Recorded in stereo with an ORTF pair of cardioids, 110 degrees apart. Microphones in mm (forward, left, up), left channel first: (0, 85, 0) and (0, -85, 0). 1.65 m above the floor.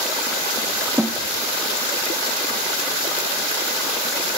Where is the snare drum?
5° right, 1.4 m.